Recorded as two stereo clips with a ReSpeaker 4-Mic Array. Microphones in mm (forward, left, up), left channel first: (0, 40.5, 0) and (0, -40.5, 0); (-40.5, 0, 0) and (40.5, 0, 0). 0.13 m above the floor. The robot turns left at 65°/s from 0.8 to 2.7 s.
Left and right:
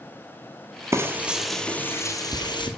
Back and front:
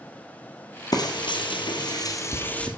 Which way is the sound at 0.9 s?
145° right.